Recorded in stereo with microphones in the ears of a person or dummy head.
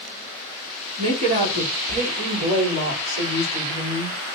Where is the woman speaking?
40° right (ahead or behind), 3.5 m; by 4.2 s 45° right (ahead or behind), 5 m.